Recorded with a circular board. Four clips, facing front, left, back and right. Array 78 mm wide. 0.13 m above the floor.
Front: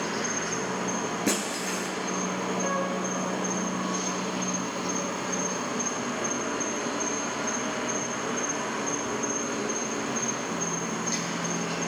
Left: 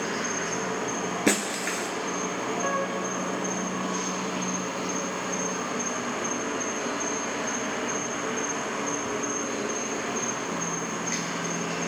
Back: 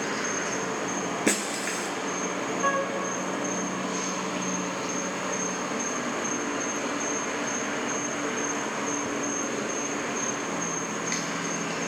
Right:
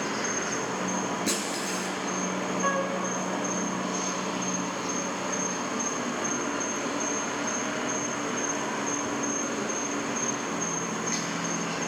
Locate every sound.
0.0 s an insect: 165° left, 2.5 m
1.3 s breaking glass: 120° left, 1.3 m
2.6 s a flute: 160° right, 0.9 m